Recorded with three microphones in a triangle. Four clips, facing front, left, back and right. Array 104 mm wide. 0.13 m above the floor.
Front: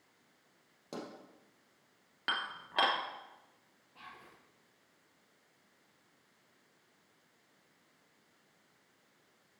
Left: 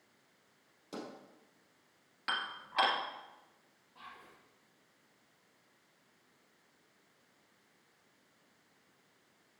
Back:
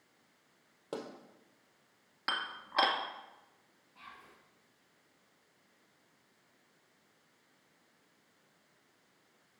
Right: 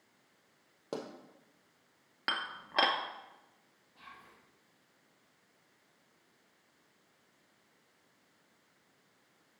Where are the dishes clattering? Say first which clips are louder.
Right 1 dB, back 1 dB; 75° right, 1.4 m.